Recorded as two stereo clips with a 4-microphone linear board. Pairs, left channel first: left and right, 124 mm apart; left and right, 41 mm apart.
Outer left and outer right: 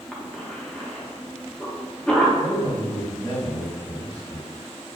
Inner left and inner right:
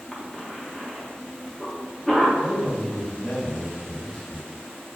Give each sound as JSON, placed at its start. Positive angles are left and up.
{"t": 0.1, "sound": "a cough", "side_deg": 10, "distance_m": 0.7}
{"t": 2.4, "sound": "a man speaking", "side_deg": 15, "distance_m": 1.4}